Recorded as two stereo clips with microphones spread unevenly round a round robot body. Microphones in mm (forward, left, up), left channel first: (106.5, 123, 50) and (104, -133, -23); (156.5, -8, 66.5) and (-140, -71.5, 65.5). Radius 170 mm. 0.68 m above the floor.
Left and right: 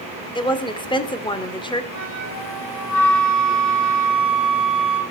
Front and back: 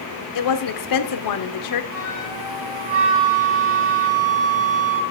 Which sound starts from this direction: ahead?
A woman speaking, at 0.3 s.